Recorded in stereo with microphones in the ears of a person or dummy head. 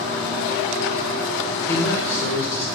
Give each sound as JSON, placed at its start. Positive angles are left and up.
{"t": 1.7, "sound": "a man speaking", "side_deg": 15, "distance_m": 1.1}